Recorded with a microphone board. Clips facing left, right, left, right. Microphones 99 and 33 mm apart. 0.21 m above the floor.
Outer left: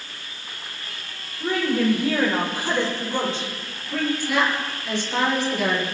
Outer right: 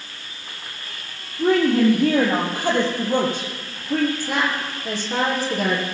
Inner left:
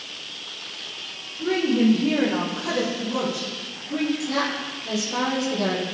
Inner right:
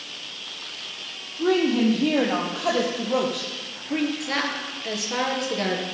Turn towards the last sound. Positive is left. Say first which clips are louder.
# outer left 1 dB, inner left 1 dB
turn(degrees=-45)  # may be behind; listen again after turning